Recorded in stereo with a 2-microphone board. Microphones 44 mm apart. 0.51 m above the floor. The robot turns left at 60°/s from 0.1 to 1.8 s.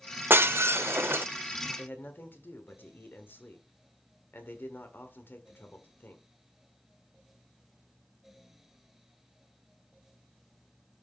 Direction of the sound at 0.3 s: 60° right.